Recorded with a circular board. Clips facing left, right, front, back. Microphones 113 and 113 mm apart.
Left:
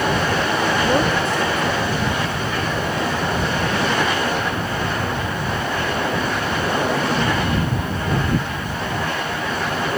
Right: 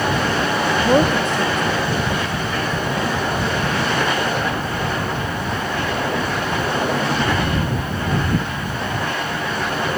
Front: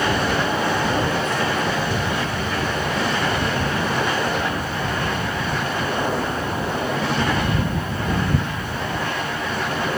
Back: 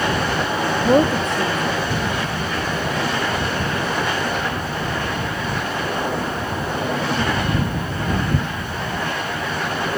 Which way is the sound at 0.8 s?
160° right.